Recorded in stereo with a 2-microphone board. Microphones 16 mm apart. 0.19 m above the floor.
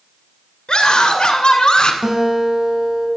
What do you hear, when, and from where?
0.7 s a scream: 60° left (ahead or behind), 2.5 m; by 1.9 s 50° left (ahead or behind), 2 m
2.0 s a guitar: 50° right (ahead or behind), 4 m